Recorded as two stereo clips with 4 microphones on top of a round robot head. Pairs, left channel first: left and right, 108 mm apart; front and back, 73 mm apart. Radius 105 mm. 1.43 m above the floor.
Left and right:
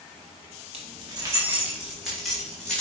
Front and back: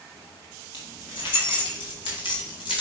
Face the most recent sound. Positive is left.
turn(degrees=10)